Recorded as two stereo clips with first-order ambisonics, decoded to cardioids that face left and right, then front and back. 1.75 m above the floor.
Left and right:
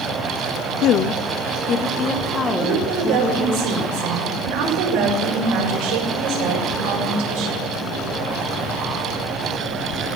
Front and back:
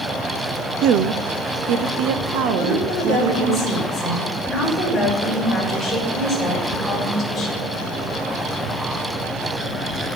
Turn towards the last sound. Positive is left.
turn(degrees=-85)